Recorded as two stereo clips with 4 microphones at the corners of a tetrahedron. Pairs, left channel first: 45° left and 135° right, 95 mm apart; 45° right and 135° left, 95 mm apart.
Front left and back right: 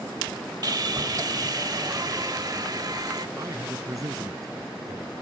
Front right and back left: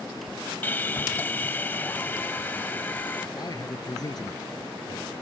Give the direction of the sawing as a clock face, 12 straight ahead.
4 o'clock.